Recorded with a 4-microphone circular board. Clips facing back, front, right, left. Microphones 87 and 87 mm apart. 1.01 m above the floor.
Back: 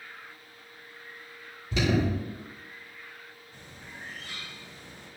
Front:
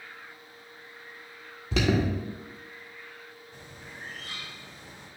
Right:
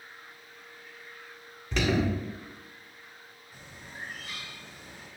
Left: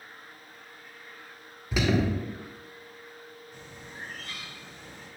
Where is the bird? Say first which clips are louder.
Even, right 2 dB; 10° right, 2.5 m.